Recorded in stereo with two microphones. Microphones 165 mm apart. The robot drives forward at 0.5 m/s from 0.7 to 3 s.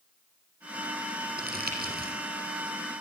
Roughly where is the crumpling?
Right.